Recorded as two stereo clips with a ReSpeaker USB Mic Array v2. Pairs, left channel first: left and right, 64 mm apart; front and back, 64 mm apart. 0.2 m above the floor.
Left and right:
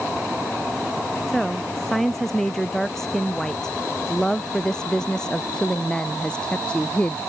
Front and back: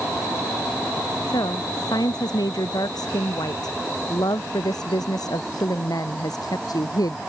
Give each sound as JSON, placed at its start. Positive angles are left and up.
{"t": 1.3, "sound": "a woman speaking", "azimuth_deg": 5}